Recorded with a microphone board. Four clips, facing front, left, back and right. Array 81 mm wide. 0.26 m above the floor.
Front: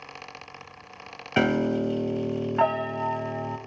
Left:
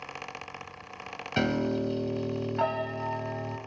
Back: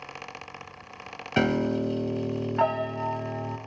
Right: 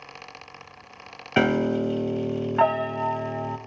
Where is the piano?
75° right, 0.6 m.